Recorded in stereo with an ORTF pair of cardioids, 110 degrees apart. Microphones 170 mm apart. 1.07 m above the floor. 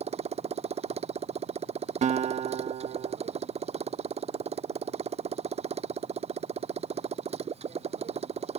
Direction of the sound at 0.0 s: 40° right.